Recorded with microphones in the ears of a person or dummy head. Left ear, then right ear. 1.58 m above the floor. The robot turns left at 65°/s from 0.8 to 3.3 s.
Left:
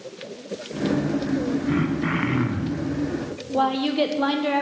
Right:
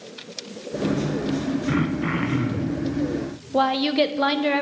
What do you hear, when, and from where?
1.7 s throat clearing: 160° right, 0.8 m; by 2.9 s 120° left, 0.8 m
3.5 s a woman speaking: 25° right (ahead or behind), 0.9 m